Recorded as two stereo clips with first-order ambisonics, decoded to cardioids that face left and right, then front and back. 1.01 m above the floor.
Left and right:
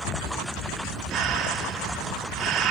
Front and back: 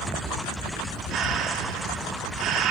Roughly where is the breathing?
Behind right.